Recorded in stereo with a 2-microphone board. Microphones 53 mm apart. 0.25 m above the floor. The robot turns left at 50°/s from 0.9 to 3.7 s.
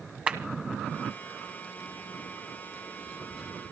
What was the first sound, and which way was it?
A clap, 25° right (ahead or behind).